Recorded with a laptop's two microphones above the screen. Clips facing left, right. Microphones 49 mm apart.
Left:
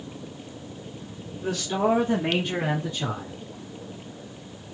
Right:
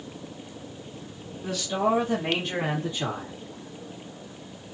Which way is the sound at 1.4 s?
55° left (ahead or behind).